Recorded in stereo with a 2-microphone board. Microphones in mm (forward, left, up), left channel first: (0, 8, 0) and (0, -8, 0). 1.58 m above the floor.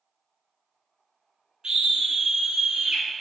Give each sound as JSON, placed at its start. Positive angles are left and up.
{"t": 1.6, "sound": "a scream", "side_deg": -55, "distance_m": 5.0}